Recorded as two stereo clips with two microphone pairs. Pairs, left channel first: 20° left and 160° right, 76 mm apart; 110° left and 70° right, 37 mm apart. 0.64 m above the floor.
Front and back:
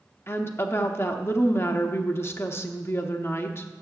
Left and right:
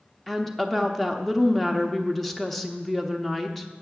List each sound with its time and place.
0.3 s a woman speaking: 30° left, 0.8 m